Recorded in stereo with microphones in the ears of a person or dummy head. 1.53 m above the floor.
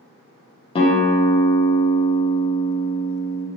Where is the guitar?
35° left (ahead or behind), 0.6 m.